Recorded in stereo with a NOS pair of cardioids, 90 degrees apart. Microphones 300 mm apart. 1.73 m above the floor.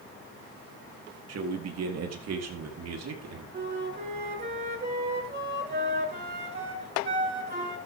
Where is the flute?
35° right, 9 m.